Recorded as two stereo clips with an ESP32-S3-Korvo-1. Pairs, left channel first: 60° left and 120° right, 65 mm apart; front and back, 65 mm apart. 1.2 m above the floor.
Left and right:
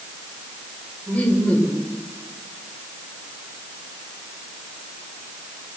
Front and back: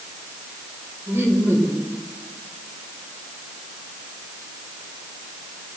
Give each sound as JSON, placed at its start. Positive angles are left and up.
{"t": 1.1, "sound": "laughter", "azimuth_deg": 130, "distance_m": 4.5}